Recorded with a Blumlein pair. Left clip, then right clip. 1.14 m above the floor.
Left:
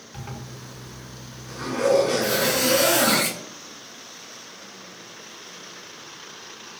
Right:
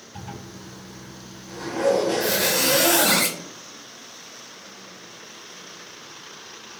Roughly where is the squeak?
Ahead right.